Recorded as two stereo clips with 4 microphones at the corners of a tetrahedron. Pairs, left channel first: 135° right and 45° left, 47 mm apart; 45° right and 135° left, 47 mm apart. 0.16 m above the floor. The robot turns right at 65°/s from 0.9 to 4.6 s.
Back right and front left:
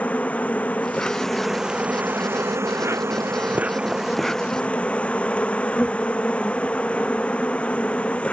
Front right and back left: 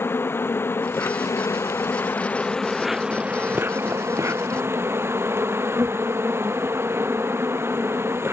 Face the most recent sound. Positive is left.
turn(degrees=160)